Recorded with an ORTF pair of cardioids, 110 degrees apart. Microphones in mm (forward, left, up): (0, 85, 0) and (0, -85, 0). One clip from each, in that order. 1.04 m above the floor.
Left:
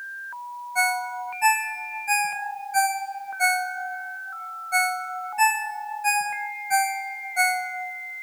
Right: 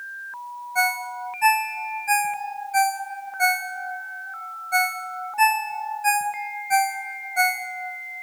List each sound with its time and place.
0.8 s a ringtone: 10° right, 0.7 m